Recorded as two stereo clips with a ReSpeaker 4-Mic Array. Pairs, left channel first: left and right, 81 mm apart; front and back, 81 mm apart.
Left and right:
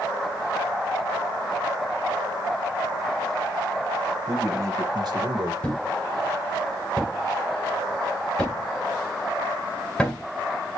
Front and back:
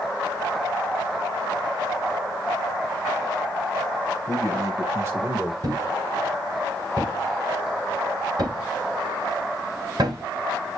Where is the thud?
170° left, 2 m.